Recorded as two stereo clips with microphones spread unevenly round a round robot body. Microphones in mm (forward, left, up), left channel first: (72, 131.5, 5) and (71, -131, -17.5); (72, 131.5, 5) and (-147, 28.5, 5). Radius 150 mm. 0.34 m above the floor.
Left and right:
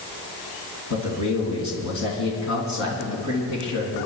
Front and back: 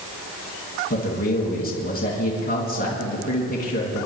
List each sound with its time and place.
0.9 s a man speaking: 75° left, 3 m